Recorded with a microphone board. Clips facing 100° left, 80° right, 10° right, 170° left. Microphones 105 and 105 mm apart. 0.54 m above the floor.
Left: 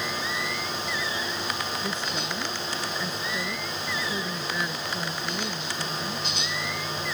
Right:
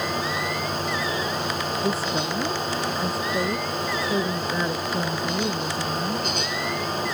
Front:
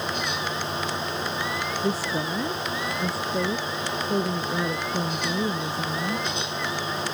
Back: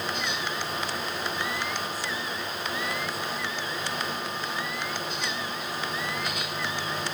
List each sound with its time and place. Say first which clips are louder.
1.8 s a woman speaking: right 6 dB, front 7 dB; 25° right